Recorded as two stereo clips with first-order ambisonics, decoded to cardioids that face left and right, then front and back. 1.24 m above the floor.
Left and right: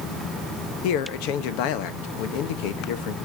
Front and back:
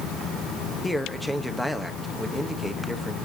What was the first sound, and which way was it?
A man speaking, 90° left.